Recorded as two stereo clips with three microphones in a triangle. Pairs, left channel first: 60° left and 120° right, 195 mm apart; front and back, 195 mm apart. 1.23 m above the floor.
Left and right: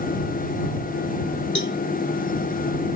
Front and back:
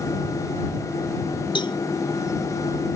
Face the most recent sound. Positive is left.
turn(degrees=65)